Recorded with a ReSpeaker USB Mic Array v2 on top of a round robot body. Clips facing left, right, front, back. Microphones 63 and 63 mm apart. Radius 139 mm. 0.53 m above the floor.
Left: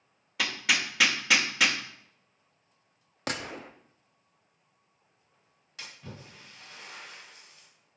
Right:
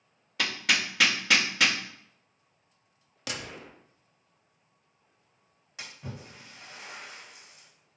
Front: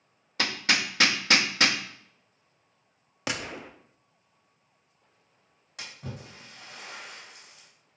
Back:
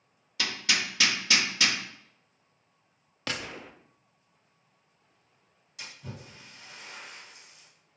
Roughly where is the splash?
Ahead right.